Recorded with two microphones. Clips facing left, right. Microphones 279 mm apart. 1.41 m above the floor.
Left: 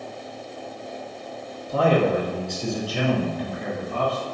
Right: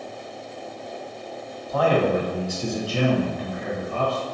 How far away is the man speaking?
About 0.7 m.